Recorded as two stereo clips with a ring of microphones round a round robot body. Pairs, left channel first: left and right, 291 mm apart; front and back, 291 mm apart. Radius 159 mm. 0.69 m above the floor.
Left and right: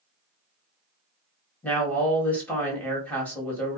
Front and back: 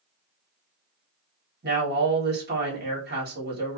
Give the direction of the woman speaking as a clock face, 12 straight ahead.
6 o'clock.